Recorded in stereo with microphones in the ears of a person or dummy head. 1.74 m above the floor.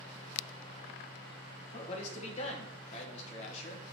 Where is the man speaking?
40° left (ahead or behind), 1.9 m.